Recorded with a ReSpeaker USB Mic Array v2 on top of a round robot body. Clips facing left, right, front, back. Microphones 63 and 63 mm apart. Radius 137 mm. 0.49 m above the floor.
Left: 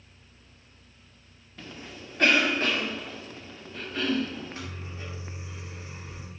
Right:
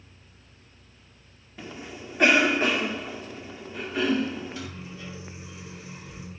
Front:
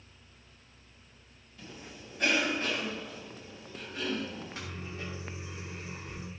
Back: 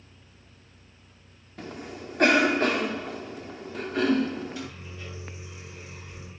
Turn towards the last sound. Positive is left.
turn(degrees=40)